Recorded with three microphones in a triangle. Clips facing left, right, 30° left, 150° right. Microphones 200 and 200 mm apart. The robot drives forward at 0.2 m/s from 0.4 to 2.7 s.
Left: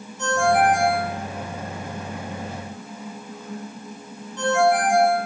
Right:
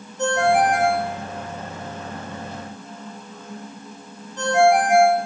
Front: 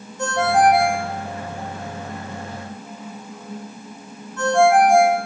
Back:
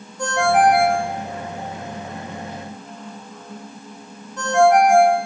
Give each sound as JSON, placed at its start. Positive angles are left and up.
{"t": 0.2, "sound": "a ringtone", "azimuth_deg": -70, "distance_m": 3.5}